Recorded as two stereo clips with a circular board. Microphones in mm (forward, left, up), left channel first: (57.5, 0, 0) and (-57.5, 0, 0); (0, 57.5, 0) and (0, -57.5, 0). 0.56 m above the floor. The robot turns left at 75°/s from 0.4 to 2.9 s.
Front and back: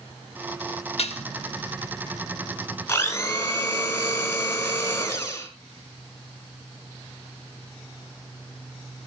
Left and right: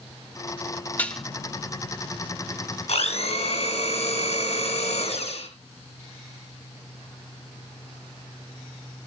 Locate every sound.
1.0 s dishes clattering: 15° left, 1.1 m; by 1.2 s straight ahead, 1.1 m
2.9 s a blender: 65° left, 4 m; by 5.5 s 60° left, 4 m